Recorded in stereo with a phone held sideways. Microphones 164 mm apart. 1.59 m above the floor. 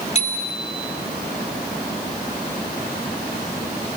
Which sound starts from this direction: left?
A bicycle bell, at 0.1 s.